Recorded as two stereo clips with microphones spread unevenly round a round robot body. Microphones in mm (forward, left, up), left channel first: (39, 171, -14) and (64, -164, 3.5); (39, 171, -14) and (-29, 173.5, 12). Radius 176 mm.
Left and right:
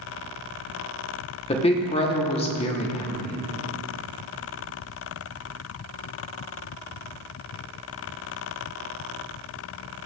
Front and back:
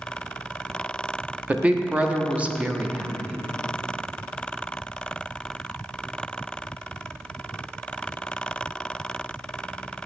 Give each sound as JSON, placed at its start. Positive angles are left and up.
{"t": 1.5, "sound": "a woman speaking", "azimuth_deg": 80, "distance_m": 0.8}